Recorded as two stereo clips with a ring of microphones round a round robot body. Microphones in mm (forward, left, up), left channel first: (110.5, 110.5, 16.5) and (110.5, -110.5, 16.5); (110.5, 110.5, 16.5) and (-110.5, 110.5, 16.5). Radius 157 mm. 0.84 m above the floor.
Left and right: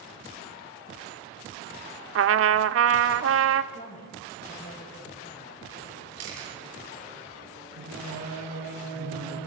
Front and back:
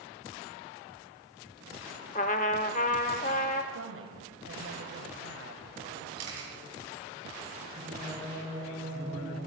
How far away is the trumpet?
About 1.1 m.